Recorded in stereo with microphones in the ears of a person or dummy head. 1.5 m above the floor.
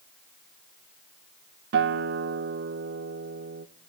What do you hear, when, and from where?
1.7 s a guitar: 60° right (ahead or behind), 0.8 m